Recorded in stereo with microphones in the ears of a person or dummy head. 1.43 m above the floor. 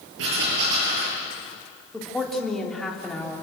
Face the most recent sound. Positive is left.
turn(degrees=5)  # may be behind; listen again after turning